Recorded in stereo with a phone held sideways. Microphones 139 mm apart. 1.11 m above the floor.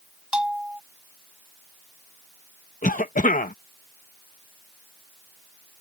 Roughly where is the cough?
Left.